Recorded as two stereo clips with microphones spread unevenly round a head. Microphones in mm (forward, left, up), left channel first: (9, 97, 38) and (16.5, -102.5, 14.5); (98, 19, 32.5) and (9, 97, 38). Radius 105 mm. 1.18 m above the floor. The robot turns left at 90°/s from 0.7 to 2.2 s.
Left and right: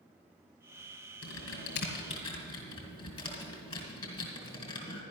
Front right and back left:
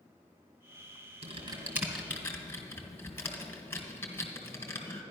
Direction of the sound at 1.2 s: 120° left.